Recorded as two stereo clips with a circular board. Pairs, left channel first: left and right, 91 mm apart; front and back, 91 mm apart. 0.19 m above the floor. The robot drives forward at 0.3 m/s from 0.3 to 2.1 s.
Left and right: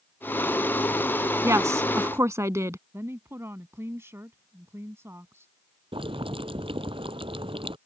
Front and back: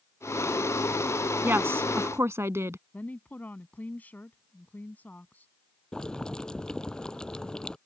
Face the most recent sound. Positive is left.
turn(degrees=-80)